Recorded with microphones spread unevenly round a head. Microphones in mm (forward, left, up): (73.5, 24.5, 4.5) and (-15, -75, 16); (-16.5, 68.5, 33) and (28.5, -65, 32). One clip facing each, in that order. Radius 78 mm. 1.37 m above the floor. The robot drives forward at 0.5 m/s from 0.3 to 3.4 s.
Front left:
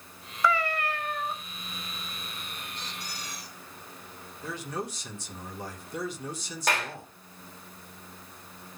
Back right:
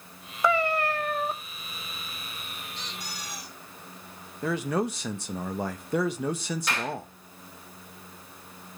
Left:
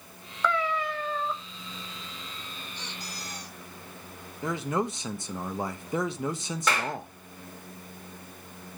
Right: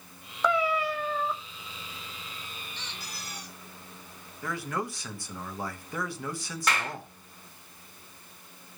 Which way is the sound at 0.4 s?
135° right.